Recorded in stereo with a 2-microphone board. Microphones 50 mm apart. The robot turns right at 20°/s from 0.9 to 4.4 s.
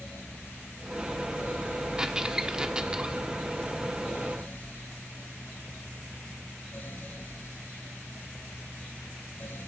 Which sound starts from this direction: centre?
A squeak, at 2.0 s.